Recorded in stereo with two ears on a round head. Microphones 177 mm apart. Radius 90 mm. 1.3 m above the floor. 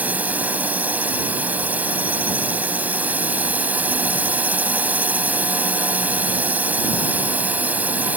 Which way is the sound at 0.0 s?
10° right (ahead or behind).